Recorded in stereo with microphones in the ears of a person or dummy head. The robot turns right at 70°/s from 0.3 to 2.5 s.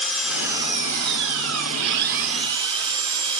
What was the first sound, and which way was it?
An engine running, 175° right.